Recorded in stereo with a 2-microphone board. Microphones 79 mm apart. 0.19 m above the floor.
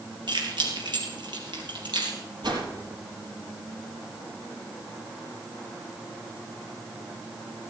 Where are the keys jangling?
75° right (ahead or behind), 3 m; by 2.2 s 70° right (ahead or behind), 3.5 m.